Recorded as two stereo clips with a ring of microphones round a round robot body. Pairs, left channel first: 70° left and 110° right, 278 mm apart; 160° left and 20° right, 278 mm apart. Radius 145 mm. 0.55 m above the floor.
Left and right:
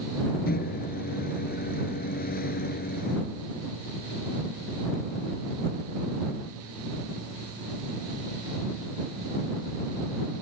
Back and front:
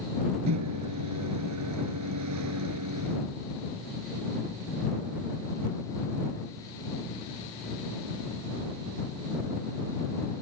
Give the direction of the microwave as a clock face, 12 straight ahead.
12 o'clock.